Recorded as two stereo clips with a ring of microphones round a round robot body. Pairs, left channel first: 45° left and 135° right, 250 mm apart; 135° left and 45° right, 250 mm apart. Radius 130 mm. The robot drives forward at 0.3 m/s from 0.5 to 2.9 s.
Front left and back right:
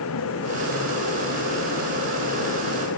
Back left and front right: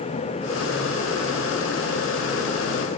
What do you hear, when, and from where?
Only background noise.